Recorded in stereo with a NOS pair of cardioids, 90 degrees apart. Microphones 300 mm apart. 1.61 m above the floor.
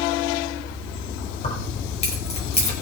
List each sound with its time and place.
1.4 s keys jangling: 20° left, 5 m